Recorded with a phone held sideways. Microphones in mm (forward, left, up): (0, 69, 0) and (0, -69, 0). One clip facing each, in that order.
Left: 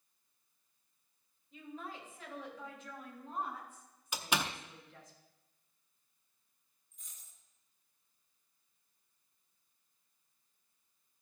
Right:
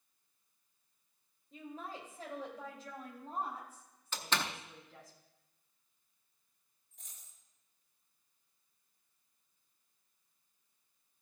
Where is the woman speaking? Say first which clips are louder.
Right 1 dB; 40° right (ahead or behind), 3 m.